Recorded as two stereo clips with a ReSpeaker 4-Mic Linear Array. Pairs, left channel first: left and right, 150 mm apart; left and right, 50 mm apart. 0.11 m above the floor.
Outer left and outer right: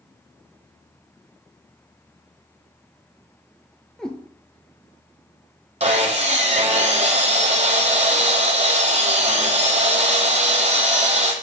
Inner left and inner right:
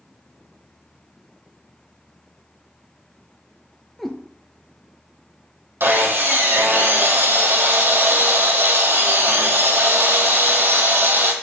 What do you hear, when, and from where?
4.0 s a cat meowing: 5° left (ahead or behind), 0.5 m
5.8 s sawing: 50° right (ahead or behind), 0.7 m